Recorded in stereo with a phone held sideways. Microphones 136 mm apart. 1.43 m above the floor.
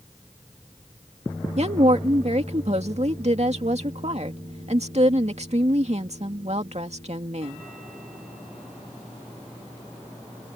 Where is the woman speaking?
55° right (ahead or behind).